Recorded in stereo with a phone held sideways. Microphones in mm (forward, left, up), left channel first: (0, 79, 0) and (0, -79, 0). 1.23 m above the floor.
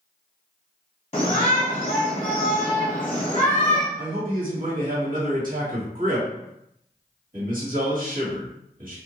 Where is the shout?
35° left (ahead or behind), 0.7 m.